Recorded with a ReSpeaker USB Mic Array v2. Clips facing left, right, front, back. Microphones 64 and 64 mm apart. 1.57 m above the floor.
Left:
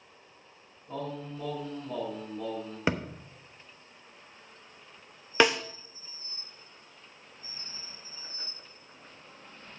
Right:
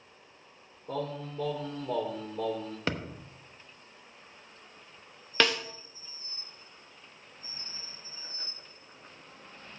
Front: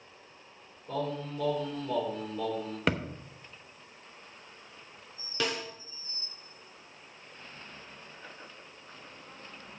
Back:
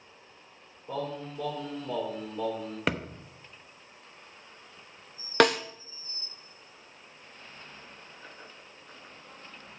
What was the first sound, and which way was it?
Singing, 105° right.